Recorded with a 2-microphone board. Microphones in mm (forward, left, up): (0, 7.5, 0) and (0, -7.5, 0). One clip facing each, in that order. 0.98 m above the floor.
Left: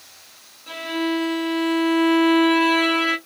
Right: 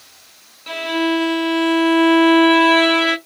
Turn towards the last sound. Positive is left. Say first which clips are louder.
# right 5 dB
turn(degrees=-35)  # may be behind; listen again after turning